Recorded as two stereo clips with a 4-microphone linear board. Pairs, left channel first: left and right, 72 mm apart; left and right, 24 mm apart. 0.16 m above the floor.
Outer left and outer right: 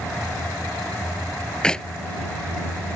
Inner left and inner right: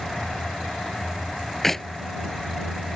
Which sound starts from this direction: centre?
A clap, at 1.6 s.